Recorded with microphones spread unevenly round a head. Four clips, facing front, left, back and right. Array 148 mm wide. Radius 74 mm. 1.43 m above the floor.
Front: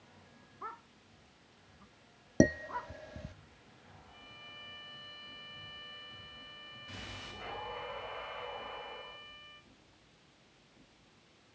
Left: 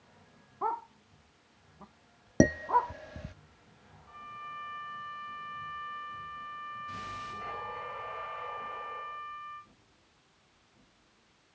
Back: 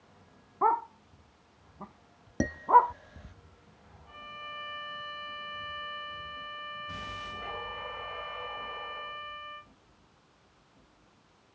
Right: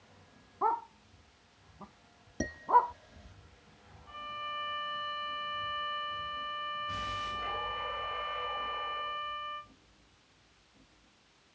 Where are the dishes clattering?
60° left.